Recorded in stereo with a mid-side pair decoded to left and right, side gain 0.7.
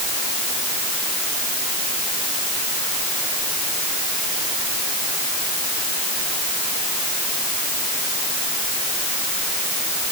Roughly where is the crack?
No crack in this recording.